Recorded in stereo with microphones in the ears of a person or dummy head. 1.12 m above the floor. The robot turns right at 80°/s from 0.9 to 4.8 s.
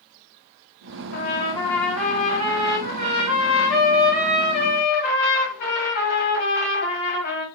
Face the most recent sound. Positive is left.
turn(degrees=60)